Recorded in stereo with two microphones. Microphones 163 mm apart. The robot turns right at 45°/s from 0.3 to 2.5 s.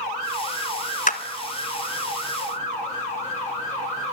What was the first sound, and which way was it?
A clap, 50° left (ahead or behind).